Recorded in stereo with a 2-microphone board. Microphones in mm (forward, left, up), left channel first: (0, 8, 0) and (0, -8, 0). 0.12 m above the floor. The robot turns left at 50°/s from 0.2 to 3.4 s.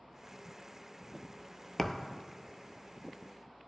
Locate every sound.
1.8 s a thud: 30° left (ahead or behind), 0.6 m; by 2.1 s 50° left (ahead or behind), 0.6 m